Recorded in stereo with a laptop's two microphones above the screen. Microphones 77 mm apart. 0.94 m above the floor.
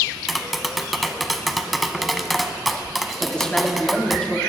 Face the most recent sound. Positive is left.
turn(degrees=15)  # may be behind; listen again after turning